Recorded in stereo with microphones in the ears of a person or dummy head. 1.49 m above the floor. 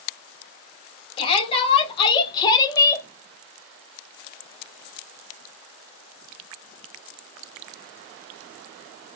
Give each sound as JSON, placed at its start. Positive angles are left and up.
{"t": 1.2, "sound": "a shout", "side_deg": 35, "distance_m": 2.0}